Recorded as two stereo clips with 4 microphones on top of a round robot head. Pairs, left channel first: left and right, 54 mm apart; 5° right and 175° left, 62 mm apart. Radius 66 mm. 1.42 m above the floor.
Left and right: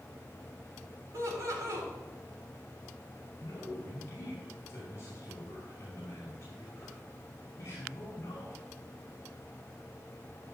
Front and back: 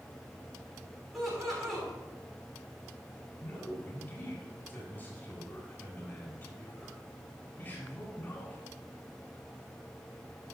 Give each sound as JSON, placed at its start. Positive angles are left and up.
{"t": 1.1, "sound": "laughter", "azimuth_deg": -95, "distance_m": 3.5}
{"t": 3.4, "sound": "a man speaking", "azimuth_deg": 50, "distance_m": 4.5}